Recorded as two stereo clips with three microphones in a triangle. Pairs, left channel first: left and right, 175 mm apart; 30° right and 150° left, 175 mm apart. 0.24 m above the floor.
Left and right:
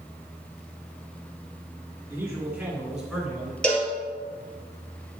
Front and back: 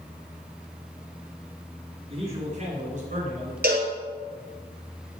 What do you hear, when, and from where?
2.1 s a man speaking: 165° right, 2 m; by 3.5 s straight behind, 3 m
3.6 s a cowbell: 175° left, 2 m